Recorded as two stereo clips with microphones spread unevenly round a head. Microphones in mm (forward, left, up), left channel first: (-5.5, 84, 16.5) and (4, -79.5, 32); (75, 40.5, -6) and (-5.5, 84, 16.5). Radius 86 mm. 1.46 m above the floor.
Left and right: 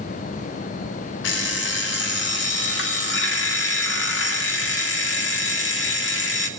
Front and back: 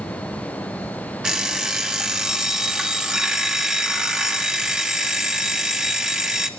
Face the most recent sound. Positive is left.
turn(degrees=75)